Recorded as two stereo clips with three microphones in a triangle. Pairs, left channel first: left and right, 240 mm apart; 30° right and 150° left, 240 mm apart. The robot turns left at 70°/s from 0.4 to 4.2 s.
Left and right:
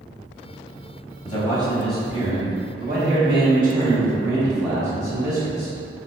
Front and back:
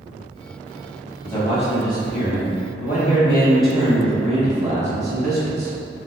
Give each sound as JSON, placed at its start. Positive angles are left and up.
{"t": 1.2, "sound": "a man speaking", "azimuth_deg": 45, "distance_m": 0.9}